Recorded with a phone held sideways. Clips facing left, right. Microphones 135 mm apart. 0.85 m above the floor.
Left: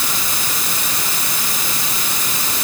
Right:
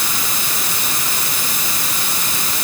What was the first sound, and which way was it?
Only background noise.